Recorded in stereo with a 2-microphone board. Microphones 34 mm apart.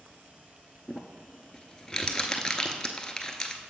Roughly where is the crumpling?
Centre.